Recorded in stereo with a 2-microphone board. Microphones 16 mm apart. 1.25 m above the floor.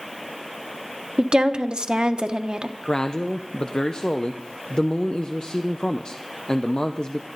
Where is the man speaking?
55° left (ahead or behind), 0.7 m.